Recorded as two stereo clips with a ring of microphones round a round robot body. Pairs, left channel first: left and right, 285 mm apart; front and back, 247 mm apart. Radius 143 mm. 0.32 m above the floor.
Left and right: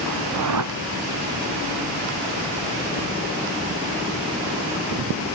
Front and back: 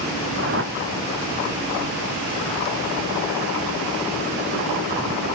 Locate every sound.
0.3 s a whoosh: 125° right